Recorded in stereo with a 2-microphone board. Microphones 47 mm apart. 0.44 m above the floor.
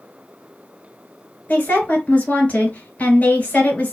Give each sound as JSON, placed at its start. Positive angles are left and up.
{"t": 1.5, "sound": "a woman speaking", "side_deg": 30, "distance_m": 1.7}